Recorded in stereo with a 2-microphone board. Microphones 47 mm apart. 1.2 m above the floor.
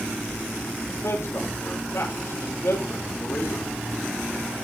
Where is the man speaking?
80° left, 5 m.